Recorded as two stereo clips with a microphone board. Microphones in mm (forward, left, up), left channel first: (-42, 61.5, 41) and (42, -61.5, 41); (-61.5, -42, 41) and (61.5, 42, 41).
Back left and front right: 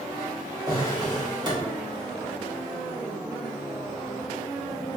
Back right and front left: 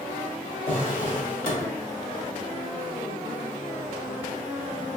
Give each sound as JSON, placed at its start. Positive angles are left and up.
{"t": 0.7, "sound": "a drawer", "azimuth_deg": -115, "distance_m": 1.7}